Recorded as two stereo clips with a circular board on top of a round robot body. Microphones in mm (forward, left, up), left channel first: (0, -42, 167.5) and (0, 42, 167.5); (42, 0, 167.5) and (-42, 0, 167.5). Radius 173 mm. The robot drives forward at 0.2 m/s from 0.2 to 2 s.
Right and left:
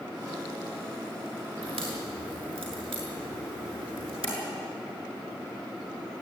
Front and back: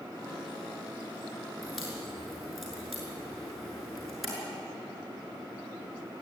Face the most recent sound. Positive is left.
turn(degrees=90)